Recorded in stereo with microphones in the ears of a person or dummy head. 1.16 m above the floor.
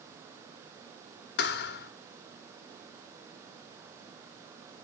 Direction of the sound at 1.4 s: 60° left (ahead or behind).